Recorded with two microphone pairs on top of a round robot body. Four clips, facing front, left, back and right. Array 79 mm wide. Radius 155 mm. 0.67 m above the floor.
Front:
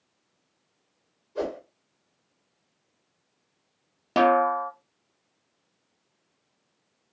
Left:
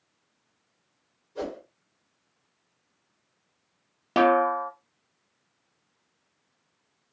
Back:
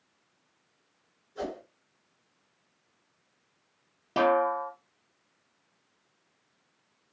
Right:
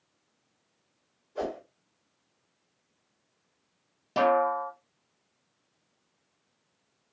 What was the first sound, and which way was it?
A whoosh, 10° right.